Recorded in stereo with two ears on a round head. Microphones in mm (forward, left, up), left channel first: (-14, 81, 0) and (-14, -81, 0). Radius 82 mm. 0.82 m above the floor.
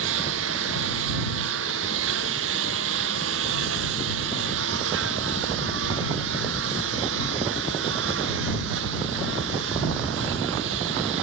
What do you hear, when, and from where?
0.0 s a lawn mower: 75° right (ahead or behind); by 11.2 s 70° right (ahead or behind)